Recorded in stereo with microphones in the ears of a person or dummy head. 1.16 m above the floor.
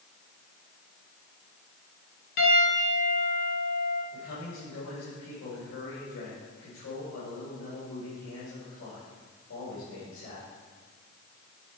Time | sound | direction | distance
2.4 | a piano | 65° left (ahead or behind) | 4 m
4.1 | a man speaking | 80° left | 3.5 m